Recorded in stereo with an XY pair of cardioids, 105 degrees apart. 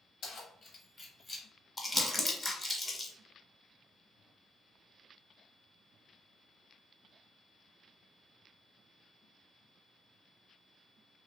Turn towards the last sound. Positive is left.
turn(degrees=15)